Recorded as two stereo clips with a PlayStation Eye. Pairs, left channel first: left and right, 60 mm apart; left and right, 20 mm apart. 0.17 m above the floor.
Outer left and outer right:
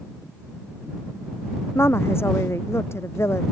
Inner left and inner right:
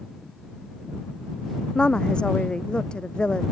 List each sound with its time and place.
1.8 s a woman speaking: 40° left (ahead or behind)